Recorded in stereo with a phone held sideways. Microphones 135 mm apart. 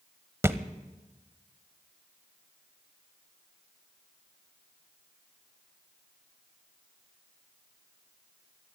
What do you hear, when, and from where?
0.4 s a thud: 20° right (ahead or behind), 1.0 m